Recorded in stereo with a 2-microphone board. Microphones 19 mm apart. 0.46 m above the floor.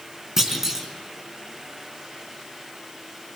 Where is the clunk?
15° right (ahead or behind), 4 m.